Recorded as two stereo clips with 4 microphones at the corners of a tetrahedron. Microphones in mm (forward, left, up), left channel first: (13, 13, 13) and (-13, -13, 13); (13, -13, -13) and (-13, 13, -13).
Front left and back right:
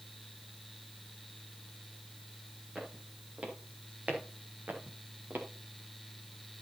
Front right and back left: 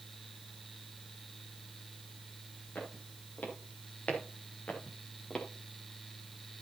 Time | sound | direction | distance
2.8 | footsteps | 80° right | 5.5 m